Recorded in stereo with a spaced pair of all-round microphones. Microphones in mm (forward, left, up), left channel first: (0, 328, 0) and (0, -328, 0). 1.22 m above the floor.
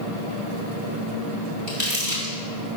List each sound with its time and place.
1.7 s crumpling: 25° left (ahead or behind), 2 m